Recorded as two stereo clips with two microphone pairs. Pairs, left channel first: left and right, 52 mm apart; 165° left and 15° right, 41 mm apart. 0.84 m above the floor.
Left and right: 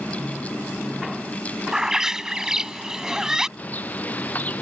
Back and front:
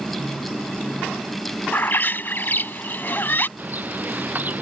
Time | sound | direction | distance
1.7 | a bird | 165° right | ?
3.6 | a bird | 35° left | ?